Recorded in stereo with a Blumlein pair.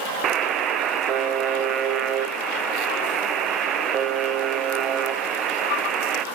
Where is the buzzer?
30° right, 0.8 m.